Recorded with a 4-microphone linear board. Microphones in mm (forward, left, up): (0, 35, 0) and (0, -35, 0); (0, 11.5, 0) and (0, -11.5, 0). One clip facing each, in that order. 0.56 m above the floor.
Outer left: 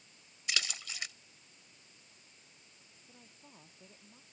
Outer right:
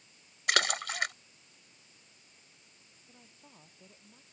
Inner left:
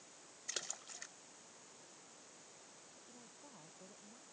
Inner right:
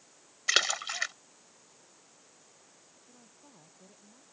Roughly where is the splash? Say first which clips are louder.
Outer right 10 dB, inner right 20 dB; right.